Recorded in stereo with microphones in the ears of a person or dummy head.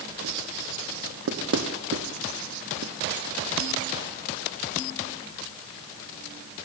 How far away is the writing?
About 1.4 m.